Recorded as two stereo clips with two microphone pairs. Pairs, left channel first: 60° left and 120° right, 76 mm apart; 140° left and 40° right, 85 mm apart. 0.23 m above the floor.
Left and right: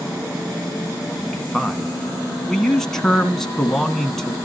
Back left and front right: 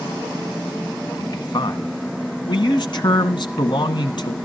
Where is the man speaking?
145° left, 2 m.